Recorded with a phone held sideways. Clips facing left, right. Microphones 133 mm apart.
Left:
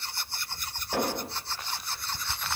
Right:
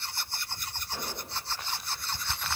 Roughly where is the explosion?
Left.